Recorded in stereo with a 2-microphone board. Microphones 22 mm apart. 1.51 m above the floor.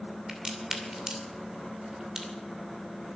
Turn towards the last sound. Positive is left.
turn(degrees=-25)  # may be behind; listen again after turning